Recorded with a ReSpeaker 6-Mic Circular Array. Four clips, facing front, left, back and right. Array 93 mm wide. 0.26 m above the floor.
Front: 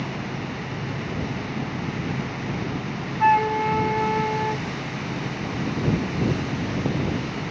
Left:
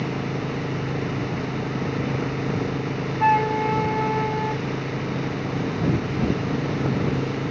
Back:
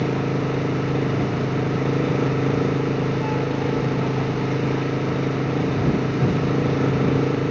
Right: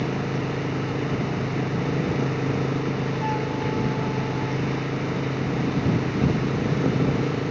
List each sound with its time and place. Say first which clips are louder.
0.0 s an engine running: right 1 dB, back 8 dB; 175° right
3.2 s a flute: left 12 dB, front 4 dB; 40° left